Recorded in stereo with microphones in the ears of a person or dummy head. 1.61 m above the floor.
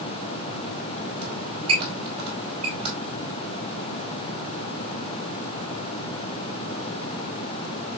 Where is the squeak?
30° right (ahead or behind), 2 m.